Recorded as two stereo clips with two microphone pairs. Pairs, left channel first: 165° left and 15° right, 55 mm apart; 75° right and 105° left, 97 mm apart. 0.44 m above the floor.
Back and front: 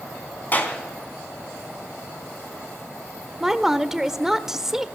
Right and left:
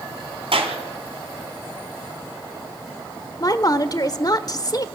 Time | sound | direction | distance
0.5 | a clap | 110° left | 3 m
3.4 | a woman speaking | 90° right | 0.9 m